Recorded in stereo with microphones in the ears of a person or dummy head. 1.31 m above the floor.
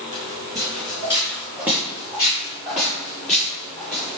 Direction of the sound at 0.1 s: 20° right (ahead or behind).